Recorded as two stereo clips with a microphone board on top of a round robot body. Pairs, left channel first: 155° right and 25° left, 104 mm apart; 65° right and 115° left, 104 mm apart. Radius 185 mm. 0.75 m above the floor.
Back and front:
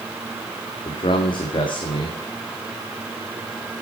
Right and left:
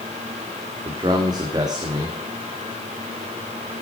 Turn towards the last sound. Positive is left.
turn(degrees=165)